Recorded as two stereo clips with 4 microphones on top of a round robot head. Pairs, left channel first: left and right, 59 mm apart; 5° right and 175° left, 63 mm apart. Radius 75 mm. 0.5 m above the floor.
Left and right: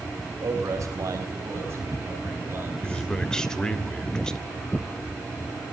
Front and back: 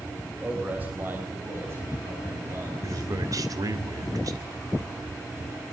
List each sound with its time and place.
0.4 s a man speaking: 115° right, 3 m; by 3.0 s 145° right, 5.5 m
2.8 s a man speaking: 165° left, 2.5 m